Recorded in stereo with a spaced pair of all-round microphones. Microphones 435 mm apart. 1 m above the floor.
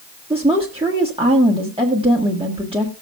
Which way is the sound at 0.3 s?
10° right (ahead or behind).